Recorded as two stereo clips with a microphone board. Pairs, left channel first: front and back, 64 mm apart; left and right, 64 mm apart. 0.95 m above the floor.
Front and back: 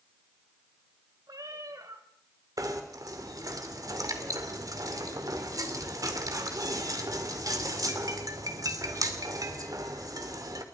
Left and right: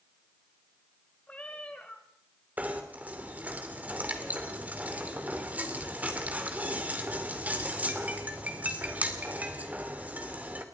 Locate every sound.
1.3 s a cat meowing: 160° left, 2.5 m
2.6 s knocking: 155° right, 2.5 m